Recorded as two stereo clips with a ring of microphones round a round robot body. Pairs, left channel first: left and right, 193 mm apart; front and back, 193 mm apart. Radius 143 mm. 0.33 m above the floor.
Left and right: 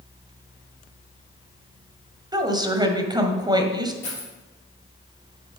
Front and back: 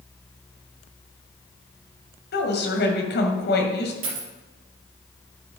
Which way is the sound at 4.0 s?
170° left.